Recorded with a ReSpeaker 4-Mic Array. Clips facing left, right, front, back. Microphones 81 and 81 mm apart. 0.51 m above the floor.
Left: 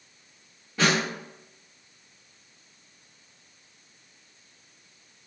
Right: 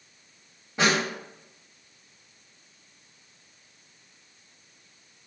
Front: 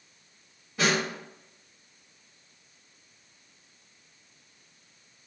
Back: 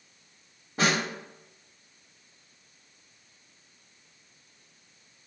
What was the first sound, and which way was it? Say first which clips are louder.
A snare drum: even, even; 150° right.